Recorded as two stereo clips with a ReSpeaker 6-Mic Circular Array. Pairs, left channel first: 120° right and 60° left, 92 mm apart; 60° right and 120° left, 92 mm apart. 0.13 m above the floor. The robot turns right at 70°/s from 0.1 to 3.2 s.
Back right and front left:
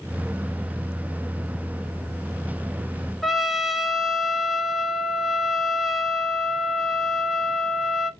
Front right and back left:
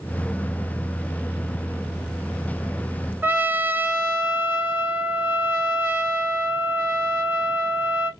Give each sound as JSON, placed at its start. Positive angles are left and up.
{"t": 3.2, "sound": "a trumpet", "azimuth_deg": 150, "distance_m": 0.5}